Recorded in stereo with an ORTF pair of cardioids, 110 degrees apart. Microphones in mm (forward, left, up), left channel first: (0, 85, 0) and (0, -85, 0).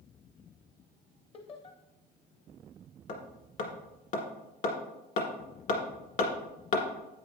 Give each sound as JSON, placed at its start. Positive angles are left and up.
{"t": 1.3, "sound": "laughter", "azimuth_deg": 35, "distance_m": 0.9}
{"t": 3.1, "sound": "hammering", "azimuth_deg": 55, "distance_m": 1.9}